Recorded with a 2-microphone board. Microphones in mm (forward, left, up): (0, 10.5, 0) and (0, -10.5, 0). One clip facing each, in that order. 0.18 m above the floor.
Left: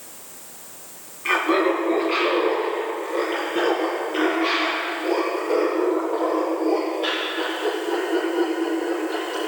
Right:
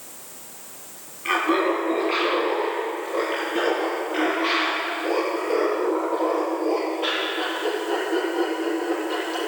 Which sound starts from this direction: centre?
Laughter, at 1.2 s.